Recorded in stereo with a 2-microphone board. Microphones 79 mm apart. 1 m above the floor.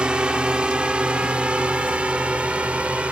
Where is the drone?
10° right (ahead or behind); by 3.1 s 15° right (ahead or behind).